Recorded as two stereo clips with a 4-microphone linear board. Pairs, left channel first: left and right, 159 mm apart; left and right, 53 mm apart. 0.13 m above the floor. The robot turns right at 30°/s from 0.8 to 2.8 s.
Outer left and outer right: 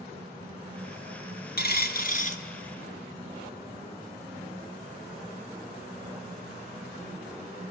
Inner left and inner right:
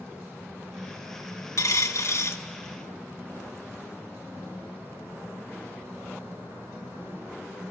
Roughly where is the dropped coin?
Left.